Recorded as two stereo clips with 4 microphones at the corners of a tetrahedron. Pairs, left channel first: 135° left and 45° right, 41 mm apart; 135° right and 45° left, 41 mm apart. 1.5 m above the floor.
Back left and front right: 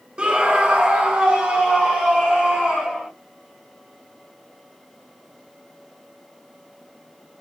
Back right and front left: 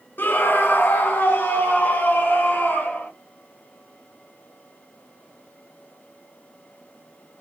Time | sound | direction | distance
0.2 | a scream | 110° right | 0.7 m